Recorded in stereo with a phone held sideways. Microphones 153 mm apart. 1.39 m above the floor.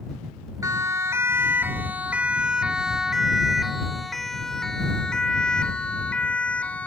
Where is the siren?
20° right (ahead or behind); by 6.9 s 10° left (ahead or behind).